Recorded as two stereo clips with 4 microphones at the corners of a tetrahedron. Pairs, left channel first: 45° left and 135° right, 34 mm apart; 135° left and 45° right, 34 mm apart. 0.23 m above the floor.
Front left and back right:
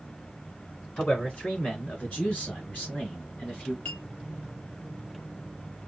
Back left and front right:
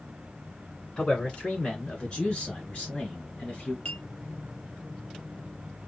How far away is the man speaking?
About 2 m.